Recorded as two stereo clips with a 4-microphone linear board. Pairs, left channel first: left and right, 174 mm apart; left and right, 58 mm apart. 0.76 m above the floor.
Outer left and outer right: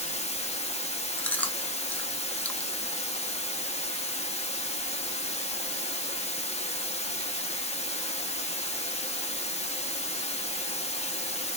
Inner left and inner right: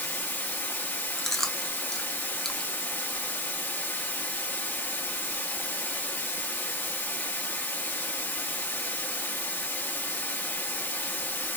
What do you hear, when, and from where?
0.0 s running water: 40° left (ahead or behind), 0.9 m
1.2 s chewing: 10° left (ahead or behind), 0.5 m